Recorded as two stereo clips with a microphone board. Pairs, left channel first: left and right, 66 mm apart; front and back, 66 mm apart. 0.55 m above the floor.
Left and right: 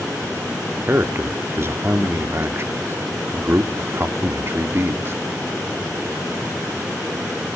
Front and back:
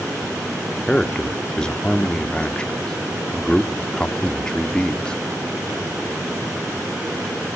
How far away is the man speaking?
About 1.2 m.